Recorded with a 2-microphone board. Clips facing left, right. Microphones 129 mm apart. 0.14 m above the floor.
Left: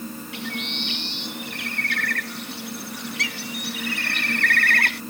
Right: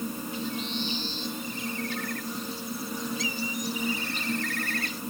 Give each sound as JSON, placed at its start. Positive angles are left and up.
{"t": 0.3, "sound": "a bird", "side_deg": 75}